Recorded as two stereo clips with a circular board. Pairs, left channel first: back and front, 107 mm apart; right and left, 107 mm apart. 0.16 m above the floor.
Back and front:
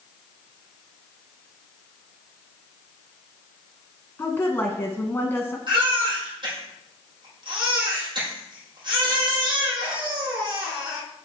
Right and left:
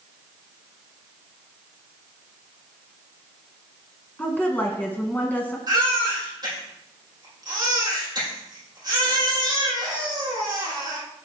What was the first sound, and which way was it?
A woman speaking, 140° right.